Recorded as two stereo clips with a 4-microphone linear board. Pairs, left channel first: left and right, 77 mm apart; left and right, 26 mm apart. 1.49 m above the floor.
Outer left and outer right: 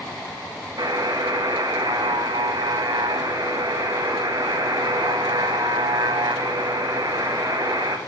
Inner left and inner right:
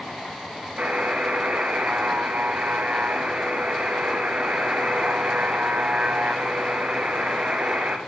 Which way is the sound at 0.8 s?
60° right (ahead or behind).